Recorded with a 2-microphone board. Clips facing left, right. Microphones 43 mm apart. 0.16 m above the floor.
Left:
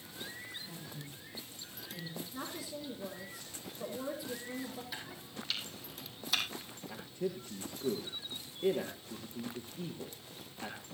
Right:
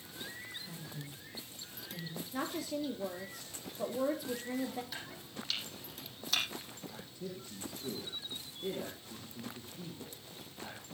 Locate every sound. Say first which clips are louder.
0.6 s a woman speaking: even; 15° right (ahead or behind), 8 m
2.3 s a woman speaking: right 9 dB; 50° right (ahead or behind), 3.5 m
4.9 s chopping: even; 5° left (ahead or behind), 4 m
6.9 s a man speaking: left 9 dB; 45° left (ahead or behind), 3 m